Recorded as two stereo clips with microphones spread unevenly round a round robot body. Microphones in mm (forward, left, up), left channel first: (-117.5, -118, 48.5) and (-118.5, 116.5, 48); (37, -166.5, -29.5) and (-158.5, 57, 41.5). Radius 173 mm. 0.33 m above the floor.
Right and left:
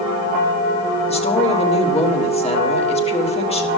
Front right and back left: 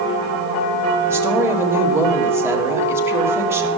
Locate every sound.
1.1 s a woman speaking: 130° right, 1.7 m